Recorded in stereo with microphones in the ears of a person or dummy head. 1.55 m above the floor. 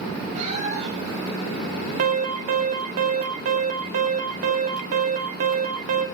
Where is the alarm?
50° right (ahead or behind), 1.4 m.